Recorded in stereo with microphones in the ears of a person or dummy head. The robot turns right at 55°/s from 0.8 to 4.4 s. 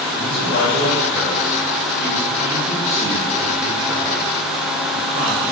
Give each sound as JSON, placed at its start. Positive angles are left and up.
{"t": 0.2, "sound": "a man speaking", "azimuth_deg": 75, "distance_m": 3.5}